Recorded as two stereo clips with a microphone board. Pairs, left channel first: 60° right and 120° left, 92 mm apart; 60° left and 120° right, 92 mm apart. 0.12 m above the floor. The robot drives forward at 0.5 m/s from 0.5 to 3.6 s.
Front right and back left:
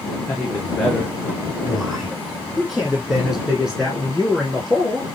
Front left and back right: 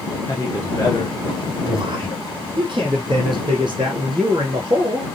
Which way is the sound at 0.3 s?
15° left.